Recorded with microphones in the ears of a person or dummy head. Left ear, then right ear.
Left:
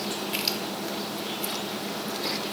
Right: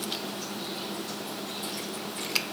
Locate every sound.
Only background noise.